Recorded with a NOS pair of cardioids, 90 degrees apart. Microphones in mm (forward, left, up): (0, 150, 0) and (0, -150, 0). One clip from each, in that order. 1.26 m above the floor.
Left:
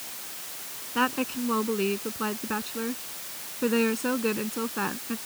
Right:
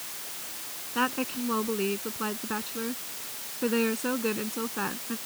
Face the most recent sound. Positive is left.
turn(degrees=15)